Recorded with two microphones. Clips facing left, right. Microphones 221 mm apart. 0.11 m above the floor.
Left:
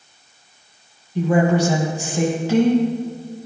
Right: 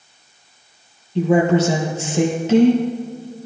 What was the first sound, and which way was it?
A woman speaking, 25° right (ahead or behind).